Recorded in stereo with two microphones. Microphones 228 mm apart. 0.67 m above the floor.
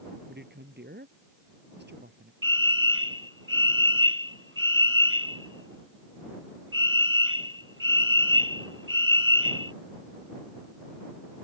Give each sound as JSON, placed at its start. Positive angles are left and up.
{"t": 0.3, "sound": "a man speaking", "side_deg": -45}
{"t": 2.4, "sound": "a fire alarm", "side_deg": -65}